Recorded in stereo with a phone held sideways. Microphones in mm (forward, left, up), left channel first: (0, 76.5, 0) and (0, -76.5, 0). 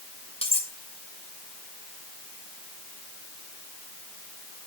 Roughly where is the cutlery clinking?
Left.